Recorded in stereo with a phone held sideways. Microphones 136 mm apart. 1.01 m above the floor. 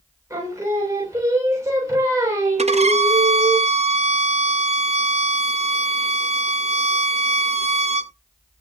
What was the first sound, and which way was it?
Singing, 20° right (ahead or behind).